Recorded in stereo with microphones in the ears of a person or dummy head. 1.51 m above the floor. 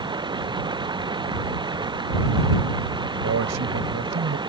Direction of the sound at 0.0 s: 20° right (ahead or behind).